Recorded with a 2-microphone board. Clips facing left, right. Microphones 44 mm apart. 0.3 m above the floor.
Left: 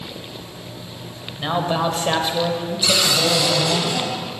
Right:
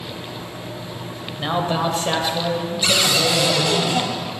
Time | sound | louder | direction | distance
1.4 | a man speaking | even | centre (ahead or behind) | 1.1 m
2.8 | a cupboard door | even | 30° right (ahead or behind) | 2 m